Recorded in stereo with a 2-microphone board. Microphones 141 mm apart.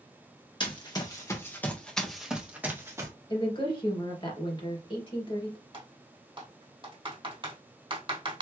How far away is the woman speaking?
About 2.5 m.